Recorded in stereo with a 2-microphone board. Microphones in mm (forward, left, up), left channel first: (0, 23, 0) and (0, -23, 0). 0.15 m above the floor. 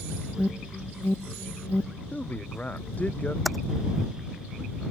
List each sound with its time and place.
0.4 s an alarm: 55° left (ahead or behind)
2.1 s a man speaking: 30° left (ahead or behind)
3.5 s typing on a keyboard: centre (ahead or behind)